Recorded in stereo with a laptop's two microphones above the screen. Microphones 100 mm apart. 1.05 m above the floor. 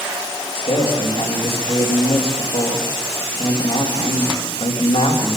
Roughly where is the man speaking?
Left.